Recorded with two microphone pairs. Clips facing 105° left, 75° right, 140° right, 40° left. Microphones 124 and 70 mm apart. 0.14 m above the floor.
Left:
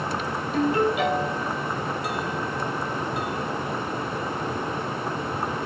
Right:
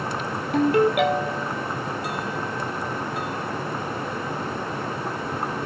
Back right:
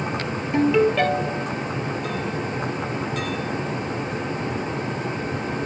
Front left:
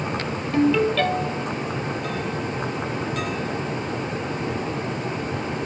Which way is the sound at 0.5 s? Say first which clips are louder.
Right 4 dB, back right 1 dB; 70° right.